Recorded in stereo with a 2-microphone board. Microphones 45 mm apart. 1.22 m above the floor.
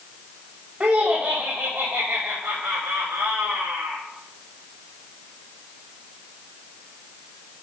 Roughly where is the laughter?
Right.